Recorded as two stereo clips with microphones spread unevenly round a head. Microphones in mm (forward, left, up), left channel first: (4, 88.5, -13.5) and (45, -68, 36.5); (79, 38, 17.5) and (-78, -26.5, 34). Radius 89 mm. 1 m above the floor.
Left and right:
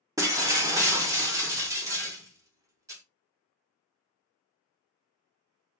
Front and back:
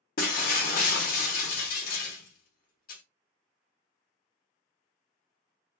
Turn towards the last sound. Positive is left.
turn(degrees=-20)